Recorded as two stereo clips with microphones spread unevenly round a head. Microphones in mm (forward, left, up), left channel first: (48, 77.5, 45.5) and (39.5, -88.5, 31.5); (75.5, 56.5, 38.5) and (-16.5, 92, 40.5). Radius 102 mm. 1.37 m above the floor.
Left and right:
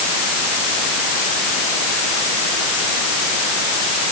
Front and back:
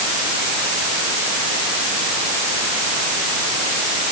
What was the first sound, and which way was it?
Only background noise.